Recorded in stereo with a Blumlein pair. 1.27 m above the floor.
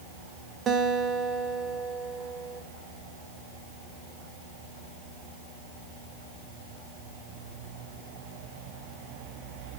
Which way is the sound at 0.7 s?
25° right.